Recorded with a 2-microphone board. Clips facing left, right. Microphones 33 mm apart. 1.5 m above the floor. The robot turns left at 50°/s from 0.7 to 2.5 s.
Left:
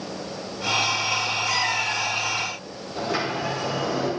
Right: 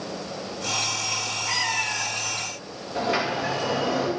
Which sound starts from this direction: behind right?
A cat meowing, at 1.5 s.